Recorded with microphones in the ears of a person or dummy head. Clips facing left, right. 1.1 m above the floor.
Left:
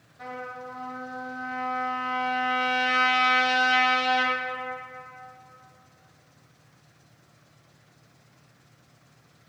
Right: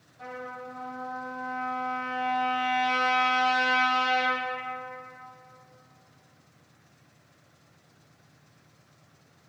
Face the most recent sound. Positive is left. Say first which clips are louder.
# left 1 dB
turn(degrees=15)  # may be behind; listen again after turning